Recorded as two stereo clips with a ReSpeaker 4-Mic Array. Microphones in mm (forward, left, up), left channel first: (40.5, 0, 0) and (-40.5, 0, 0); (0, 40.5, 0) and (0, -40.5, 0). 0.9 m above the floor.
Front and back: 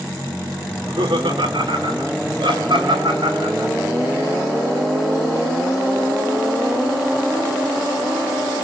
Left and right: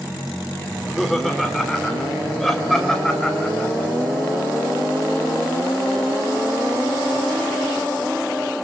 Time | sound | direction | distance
0.7 | laughter | straight behind | 2.5 m